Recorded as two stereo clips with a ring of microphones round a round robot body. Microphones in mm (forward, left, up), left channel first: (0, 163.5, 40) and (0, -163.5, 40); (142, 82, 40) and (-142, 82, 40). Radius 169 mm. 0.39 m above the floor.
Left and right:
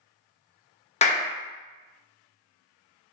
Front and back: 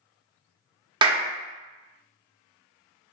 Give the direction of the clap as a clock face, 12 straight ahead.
8 o'clock.